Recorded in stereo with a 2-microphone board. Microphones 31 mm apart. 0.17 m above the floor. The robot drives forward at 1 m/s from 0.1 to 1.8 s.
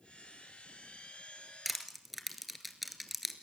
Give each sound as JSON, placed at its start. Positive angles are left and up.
{"t": 1.6, "sound": "crushing", "side_deg": -5, "distance_m": 2.5}